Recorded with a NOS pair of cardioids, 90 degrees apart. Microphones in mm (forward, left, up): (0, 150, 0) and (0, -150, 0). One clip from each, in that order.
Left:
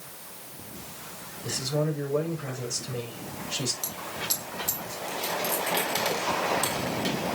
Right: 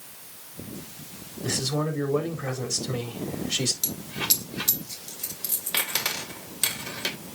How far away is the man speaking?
About 4 m.